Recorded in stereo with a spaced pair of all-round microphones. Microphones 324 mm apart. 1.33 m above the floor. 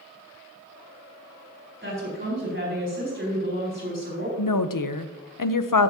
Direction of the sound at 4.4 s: 75° left (ahead or behind).